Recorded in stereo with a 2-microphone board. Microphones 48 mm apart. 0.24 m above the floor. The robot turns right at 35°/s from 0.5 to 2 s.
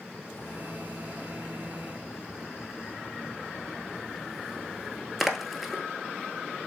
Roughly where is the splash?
Left.